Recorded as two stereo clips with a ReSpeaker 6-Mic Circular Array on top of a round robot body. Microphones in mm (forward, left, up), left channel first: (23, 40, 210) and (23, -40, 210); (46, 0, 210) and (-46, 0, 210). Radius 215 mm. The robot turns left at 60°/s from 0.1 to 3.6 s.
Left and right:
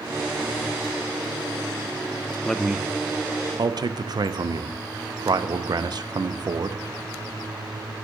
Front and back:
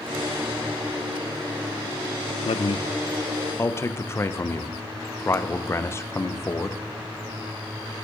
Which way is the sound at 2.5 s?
5° left.